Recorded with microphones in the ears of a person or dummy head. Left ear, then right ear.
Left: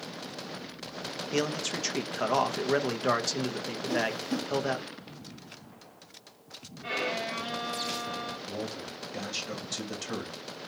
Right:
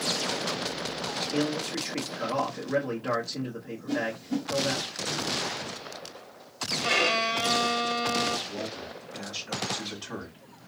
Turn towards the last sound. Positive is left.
turn(degrees=70)  # may be behind; listen again after turning